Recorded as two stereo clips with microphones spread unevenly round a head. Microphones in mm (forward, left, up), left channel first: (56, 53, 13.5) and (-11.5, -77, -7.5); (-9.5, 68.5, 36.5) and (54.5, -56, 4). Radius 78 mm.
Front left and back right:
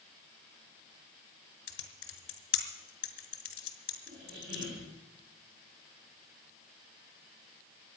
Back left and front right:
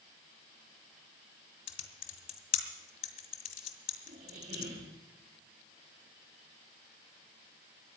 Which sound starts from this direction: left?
Typing on a keyboard, at 1.7 s.